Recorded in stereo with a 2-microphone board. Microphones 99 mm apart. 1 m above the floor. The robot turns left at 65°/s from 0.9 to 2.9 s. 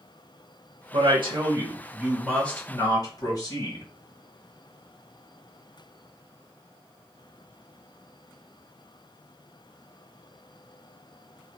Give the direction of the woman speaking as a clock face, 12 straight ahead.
3 o'clock.